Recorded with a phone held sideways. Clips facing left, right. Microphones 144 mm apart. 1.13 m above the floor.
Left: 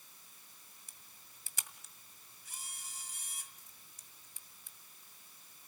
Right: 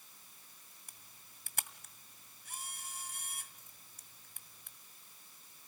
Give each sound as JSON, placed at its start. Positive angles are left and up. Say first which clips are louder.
{"t": 0.9, "sound": "a camera shutter", "louder": "right 1 dB", "side_deg": -60, "distance_m": 1.9}